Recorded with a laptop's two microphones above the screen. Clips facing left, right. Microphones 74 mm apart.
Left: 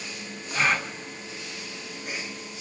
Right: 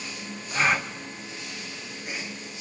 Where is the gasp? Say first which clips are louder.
Right 1 dB; 10° right (ahead or behind), 1.0 m.